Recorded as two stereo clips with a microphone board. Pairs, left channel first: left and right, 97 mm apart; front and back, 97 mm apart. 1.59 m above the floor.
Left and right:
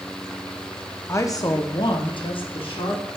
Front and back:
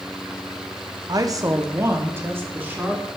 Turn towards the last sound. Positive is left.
turn(degrees=110)